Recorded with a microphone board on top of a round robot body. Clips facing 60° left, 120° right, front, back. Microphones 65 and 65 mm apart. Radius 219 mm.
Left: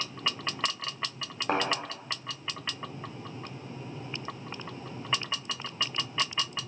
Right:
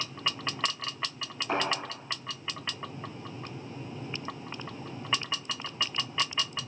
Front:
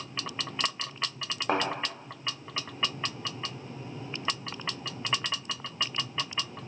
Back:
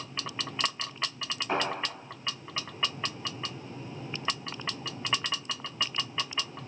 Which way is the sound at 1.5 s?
20° left.